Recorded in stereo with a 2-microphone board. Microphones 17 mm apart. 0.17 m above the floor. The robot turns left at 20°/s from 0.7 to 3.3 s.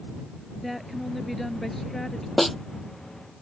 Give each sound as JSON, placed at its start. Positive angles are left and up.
{"t": 0.6, "sound": "a woman speaking", "azimuth_deg": 175}
{"t": 2.4, "sound": "a snare drum", "side_deg": 0}